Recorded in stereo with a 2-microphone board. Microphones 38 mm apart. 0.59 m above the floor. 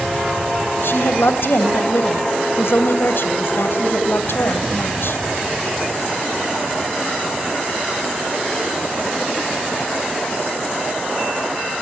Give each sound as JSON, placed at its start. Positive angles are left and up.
{"t": 0.8, "sound": "a woman speaking", "side_deg": 70, "distance_m": 3.5}